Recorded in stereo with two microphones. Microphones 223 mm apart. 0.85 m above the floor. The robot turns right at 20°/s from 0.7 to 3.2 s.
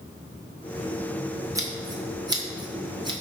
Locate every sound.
1.6 s scissors: 15° right (ahead or behind), 0.6 m; by 3.1 s 20° right (ahead or behind), 0.6 m